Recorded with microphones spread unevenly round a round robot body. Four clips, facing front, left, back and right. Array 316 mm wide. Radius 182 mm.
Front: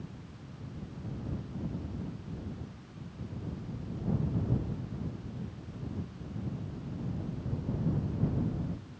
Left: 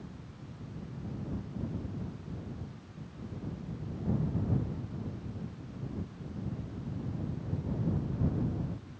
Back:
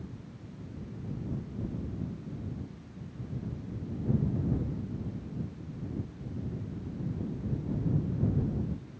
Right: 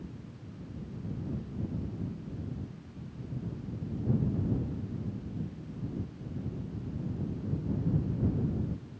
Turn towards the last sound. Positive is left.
No sound to turn to.